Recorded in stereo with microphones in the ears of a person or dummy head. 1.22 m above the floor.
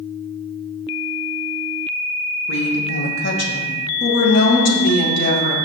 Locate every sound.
2.5 s a woman speaking: 75° left (ahead or behind), 2.5 m; by 5.5 s 55° left (ahead or behind), 3.5 m